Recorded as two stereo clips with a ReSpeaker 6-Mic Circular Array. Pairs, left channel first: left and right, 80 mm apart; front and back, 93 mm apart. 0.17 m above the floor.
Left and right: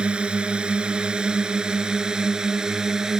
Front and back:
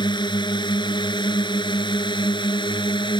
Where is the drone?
15° right; by 3.2 s 10° right.